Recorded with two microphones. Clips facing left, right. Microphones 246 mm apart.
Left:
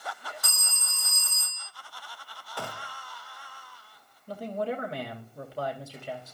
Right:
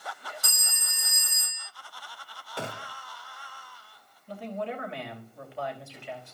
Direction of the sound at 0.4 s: 15° right (ahead or behind).